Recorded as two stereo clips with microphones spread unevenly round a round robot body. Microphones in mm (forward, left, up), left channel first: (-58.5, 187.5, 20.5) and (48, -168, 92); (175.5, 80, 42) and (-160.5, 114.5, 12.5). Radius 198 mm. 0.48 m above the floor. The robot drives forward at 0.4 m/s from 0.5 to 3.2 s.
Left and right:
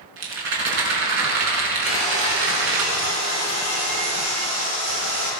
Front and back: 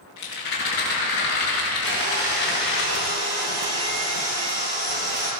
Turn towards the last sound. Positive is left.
turn(degrees=-120)